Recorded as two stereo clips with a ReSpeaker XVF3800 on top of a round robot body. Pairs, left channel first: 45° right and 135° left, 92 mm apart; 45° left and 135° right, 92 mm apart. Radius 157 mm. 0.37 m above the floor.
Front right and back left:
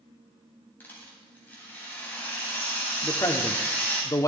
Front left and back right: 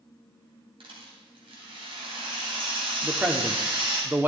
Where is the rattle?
115° right, 3 m.